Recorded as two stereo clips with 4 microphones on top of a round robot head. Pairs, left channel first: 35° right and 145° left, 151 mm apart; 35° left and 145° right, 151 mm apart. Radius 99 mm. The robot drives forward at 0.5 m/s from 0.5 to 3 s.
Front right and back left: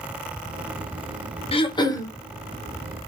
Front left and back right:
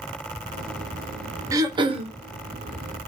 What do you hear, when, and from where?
1.5 s throat clearing: 80° right, 0.9 m; by 2.1 s 100° right, 0.9 m